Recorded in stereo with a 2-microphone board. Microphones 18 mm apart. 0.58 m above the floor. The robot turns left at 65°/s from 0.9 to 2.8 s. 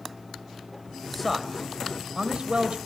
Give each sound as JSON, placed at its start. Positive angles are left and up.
{"t": 1.1, "sound": "a man speaking", "side_deg": 15, "distance_m": 3.0}